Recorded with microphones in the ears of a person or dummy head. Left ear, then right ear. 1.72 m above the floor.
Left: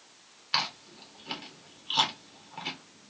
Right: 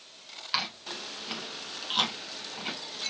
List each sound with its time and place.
0.5 s chewing: centre (ahead or behind), 1.2 m